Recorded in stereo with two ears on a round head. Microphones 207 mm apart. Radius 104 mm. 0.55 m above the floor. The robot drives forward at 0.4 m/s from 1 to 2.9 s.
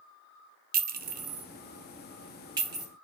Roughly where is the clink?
Right.